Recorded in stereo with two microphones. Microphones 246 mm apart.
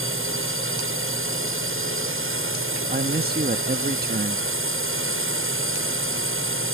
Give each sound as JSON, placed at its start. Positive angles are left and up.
{"t": 0.0, "sound": "a drone", "side_deg": -55}
{"t": 2.9, "sound": "a man speaking", "side_deg": -40}